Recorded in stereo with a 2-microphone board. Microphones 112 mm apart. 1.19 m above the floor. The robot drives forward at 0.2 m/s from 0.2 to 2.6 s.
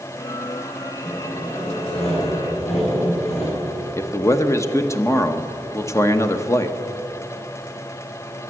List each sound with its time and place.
1.0 s sawing: 80° left, 6.5 m
4.0 s a man speaking: 25° left (ahead or behind), 0.8 m